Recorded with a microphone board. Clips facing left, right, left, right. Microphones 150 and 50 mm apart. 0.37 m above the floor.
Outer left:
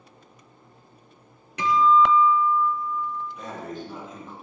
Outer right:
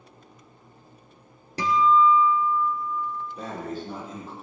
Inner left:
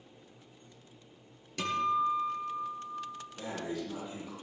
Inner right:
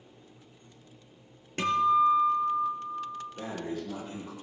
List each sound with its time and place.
1.6 s a guitar: 35° right (ahead or behind), 3.5 m
3.4 s breathing: 35° right (ahead or behind), 10 m